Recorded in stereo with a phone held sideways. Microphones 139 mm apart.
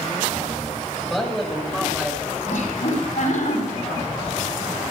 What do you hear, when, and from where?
1.0 s a man speaking: centre (ahead or behind), 5 m
2.5 s laughter: 70° left (ahead or behind), 8 m